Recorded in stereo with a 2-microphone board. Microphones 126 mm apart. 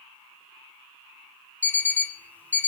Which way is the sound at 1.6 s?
15° left (ahead or behind).